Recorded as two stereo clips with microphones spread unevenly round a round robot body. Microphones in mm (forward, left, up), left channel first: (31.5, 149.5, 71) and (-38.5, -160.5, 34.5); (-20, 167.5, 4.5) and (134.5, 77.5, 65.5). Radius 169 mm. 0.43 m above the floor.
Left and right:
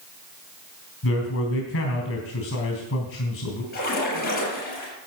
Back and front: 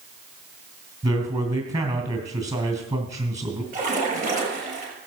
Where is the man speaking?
25° left, 3 m.